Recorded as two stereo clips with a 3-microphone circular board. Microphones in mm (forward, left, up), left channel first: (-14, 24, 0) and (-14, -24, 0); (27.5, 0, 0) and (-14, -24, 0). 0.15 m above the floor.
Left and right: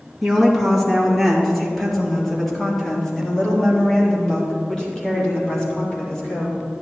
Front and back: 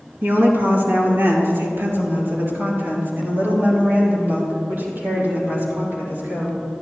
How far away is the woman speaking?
About 3 m.